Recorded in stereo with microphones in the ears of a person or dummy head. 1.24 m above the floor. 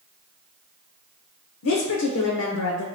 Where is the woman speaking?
75° left (ahead or behind), 0.7 m.